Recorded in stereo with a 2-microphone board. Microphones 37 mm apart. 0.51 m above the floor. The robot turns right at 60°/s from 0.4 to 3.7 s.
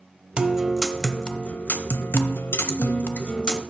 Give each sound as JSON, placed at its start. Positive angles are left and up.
{"t": 0.4, "sound": "a guitar", "azimuth_deg": -30, "distance_m": 0.6}